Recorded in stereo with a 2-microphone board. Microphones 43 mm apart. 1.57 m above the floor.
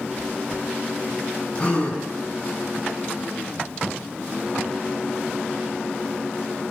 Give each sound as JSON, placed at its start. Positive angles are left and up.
{"t": 1.6, "sound": "a gasp", "side_deg": 25, "distance_m": 6.5}